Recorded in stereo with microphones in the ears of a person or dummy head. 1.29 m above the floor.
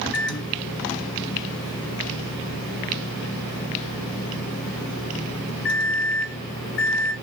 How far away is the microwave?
About 0.9 m.